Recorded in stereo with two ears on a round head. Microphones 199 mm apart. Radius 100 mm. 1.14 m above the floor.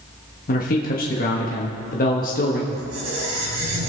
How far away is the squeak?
About 3 m.